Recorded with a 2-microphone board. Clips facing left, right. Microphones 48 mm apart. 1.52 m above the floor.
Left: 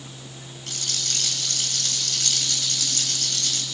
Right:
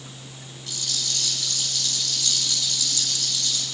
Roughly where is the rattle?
Left.